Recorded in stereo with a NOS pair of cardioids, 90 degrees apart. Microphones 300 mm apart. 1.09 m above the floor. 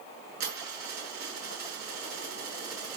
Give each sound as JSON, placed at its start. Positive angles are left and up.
{"t": 0.4, "sound": "a dropped coin", "azimuth_deg": -65, "distance_m": 7.0}